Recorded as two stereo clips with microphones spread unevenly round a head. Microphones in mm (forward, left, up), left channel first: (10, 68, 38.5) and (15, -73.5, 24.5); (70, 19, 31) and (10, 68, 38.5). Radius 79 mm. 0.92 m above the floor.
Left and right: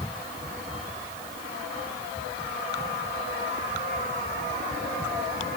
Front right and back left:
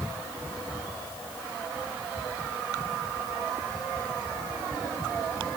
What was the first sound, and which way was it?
Only background noise.